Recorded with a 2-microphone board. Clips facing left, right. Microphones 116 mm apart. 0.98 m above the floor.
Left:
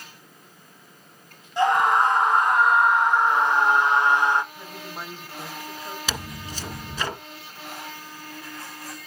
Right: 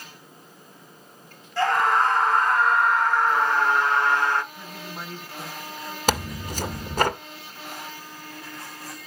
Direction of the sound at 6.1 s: 55° right (ahead or behind).